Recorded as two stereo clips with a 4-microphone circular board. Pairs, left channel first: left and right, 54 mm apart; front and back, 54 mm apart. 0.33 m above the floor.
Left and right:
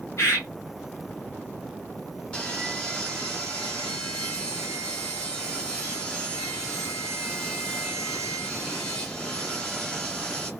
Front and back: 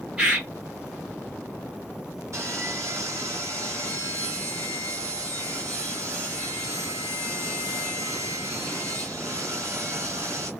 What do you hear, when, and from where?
0.2 s a bird: 105° left, 1.9 m
2.3 s sawing: 160° left, 1.8 m